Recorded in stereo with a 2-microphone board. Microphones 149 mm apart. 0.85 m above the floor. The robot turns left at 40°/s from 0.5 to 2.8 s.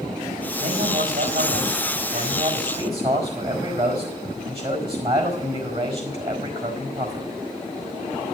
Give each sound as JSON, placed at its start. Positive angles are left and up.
{"t": 0.6, "sound": "a man speaking", "azimuth_deg": -45, "distance_m": 4.5}